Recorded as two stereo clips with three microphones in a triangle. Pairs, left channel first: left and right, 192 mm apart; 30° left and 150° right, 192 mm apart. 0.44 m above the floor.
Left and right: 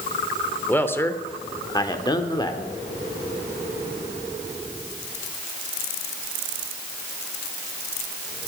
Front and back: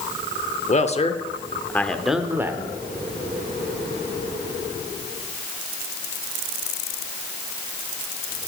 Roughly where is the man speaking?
Ahead.